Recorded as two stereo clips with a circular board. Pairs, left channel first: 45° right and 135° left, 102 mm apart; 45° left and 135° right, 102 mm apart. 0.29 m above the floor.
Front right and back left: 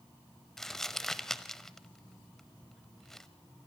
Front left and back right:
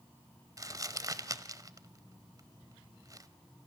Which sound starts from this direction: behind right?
Crumpling, at 0.6 s.